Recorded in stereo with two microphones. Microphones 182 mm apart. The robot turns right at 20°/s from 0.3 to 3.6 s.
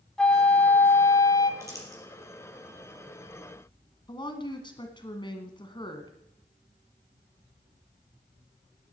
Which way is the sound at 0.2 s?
5° left (ahead or behind).